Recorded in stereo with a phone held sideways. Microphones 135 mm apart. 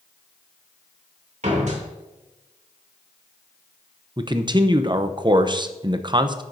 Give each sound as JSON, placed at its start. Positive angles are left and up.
{"t": 1.4, "sound": "a door slam", "side_deg": -60, "distance_m": 3.0}
{"t": 4.2, "sound": "a man speaking", "side_deg": -35, "distance_m": 0.7}